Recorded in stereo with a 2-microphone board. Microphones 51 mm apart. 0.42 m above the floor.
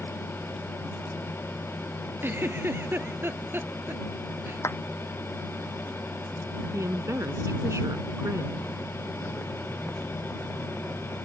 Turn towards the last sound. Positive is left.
turn(degrees=-75)  # may be behind; listen again after turning